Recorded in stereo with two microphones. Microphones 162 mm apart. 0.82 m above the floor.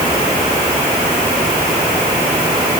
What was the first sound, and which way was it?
Only background noise.